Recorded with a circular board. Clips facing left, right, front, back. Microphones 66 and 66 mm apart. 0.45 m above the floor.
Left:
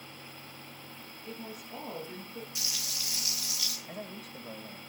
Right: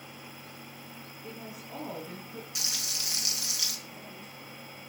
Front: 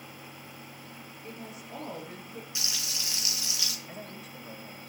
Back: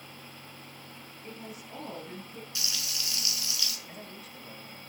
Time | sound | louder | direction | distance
1.2 | a woman speaking | left 1 dB, even | 90° right | 6.5 m
2.5 | frying | right 2 dB, back 1 dB | 65° right | 4.5 m
3.9 | a man speaking | left 3 dB, front 2 dB | 75° left | 2.5 m